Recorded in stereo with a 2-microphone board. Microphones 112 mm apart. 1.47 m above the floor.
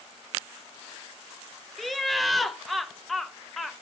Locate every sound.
1.8 s laughter: centre (ahead or behind), 0.5 m